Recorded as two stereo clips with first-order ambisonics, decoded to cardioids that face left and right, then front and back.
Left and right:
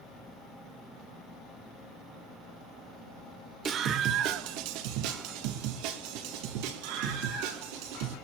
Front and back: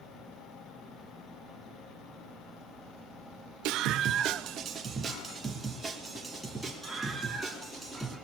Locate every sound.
3.6 s a scream: 155° right, 1.4 m; by 8.2 s 90° right, 5.5 m